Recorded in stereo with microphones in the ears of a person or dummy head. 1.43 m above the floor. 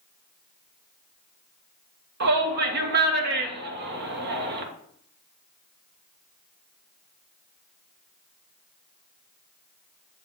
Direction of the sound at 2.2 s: 60° right (ahead or behind).